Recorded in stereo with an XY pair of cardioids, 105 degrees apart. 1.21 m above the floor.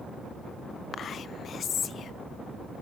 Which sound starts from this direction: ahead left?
Whispering, at 0.9 s.